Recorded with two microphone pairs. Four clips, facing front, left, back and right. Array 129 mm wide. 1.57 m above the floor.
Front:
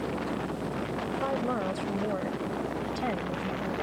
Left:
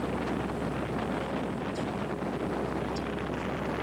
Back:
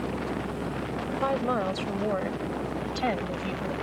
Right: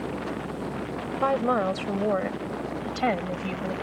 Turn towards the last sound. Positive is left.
turn(degrees=-110)